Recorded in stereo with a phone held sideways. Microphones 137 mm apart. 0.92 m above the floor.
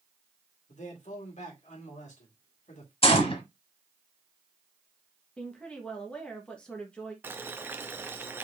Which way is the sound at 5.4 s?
5° left (ahead or behind).